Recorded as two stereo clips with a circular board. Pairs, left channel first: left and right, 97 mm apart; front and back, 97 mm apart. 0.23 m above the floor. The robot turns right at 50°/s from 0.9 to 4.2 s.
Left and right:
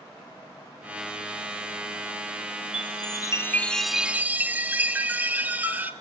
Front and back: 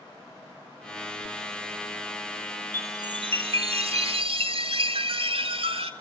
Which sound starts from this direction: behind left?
A chime, at 2.7 s.